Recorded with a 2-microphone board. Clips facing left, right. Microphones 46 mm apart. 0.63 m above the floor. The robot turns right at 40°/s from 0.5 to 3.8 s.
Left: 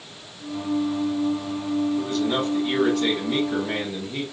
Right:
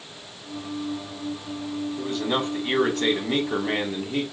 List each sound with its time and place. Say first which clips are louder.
2.0 s a man speaking: left 2 dB; 170° right, 1.8 m; by 4.2 s 100° right, 1.8 m